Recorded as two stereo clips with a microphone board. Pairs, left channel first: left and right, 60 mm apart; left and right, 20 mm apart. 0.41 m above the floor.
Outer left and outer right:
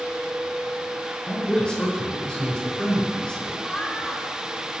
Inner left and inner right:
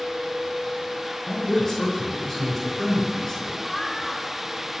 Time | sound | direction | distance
1.3 | a man speaking | 20° left (ahead or behind) | 5 m
3.6 | laughter | 10° left (ahead or behind) | 4.5 m